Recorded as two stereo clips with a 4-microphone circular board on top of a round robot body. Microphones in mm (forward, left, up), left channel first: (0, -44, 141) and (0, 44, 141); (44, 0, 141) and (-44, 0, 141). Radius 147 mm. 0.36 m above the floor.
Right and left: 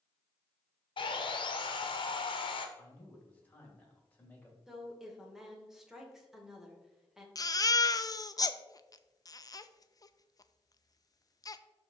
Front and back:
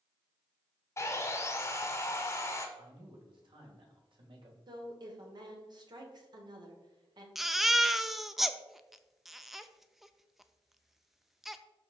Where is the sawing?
60° right, 0.8 m.